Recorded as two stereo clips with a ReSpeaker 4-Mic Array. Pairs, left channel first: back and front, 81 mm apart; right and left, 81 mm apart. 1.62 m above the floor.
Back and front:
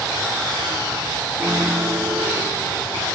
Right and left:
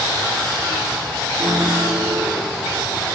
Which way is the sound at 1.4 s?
45° left.